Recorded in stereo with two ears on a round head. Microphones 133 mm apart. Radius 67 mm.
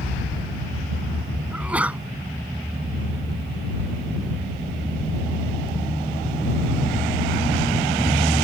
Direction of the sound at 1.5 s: 10° right (ahead or behind).